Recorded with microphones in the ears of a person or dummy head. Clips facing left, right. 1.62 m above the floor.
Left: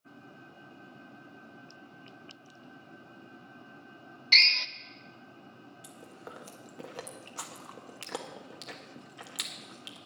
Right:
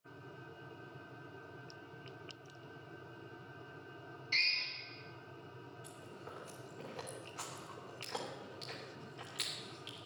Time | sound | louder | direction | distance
4.3 | a drill | left 9 dB | 70° left (ahead or behind) | 0.7 m
5.8 | chewing | left 6 dB | 60° left (ahead or behind) | 1.4 m